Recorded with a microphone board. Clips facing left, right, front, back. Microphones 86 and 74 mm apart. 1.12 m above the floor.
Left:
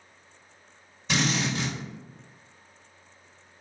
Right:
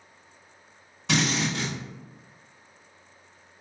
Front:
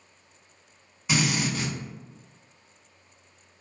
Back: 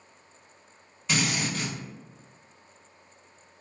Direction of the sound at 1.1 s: 75° right.